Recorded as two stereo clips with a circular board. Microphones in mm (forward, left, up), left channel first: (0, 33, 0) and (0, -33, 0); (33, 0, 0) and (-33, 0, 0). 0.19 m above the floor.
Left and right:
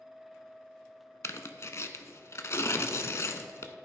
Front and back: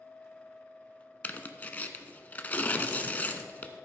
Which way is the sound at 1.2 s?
60° left.